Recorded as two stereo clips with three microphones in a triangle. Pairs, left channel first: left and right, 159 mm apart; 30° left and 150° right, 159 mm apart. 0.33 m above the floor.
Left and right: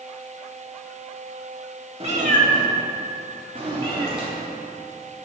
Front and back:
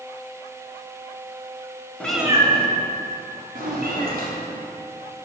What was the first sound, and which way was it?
A cat meowing, 50° right.